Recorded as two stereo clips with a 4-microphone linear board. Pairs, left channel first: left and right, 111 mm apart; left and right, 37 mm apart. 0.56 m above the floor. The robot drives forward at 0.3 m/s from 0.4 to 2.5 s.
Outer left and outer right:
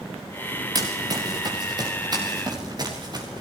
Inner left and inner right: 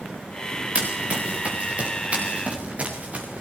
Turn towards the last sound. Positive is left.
turn(degrees=-40)  # may be behind; listen again after turning